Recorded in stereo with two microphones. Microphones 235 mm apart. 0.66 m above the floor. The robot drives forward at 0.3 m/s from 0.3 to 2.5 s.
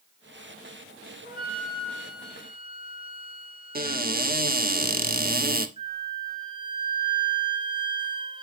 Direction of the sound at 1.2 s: 45° left (ahead or behind).